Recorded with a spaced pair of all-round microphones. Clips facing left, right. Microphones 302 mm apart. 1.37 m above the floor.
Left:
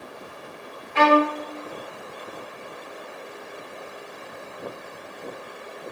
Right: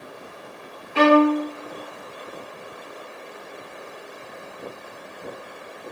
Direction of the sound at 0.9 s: 40° right (ahead or behind).